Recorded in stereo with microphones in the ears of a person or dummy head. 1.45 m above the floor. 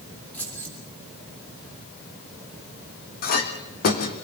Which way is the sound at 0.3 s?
10° left (ahead or behind).